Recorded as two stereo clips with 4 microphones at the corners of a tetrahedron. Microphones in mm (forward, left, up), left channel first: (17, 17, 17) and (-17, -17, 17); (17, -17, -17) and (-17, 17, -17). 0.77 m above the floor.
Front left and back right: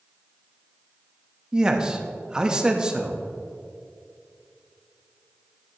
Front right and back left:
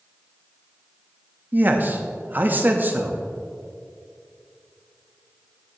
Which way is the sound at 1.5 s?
160° left.